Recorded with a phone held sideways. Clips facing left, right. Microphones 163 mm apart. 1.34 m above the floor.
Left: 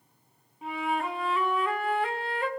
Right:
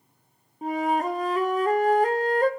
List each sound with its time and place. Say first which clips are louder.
0.6 s a flute: right 6 dB; 40° right (ahead or behind), 0.5 m